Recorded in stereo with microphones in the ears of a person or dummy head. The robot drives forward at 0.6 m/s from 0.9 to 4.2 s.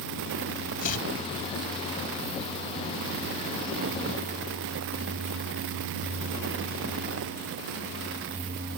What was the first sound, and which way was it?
Chopping, 40° left (ahead or behind).